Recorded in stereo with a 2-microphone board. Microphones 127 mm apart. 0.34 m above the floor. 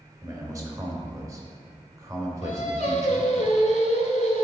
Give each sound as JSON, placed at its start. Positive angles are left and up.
{"t": 0.2, "sound": "a man speaking", "side_deg": -25, "distance_m": 1.2}
{"t": 2.4, "sound": "singing", "side_deg": 75, "distance_m": 0.9}